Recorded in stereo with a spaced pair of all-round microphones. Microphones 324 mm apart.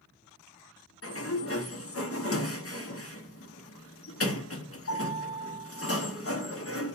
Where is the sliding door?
45° left (ahead or behind), 0.6 m.